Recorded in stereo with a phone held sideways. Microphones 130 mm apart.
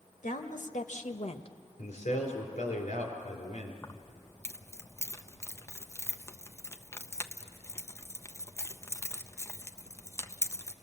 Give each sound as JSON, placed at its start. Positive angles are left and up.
{"t": 0.2, "sound": "a woman speaking", "side_deg": 80, "distance_m": 1.8}
{"t": 1.8, "sound": "a man speaking", "side_deg": 75, "distance_m": 4.5}
{"t": 3.8, "sound": "keys jangling", "side_deg": 20, "distance_m": 0.7}